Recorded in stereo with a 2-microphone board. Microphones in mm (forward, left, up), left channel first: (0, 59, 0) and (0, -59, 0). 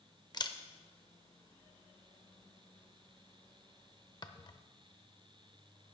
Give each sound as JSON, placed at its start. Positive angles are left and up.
{"t": 0.3, "sound": "a camera shutter", "side_deg": 40, "distance_m": 0.6}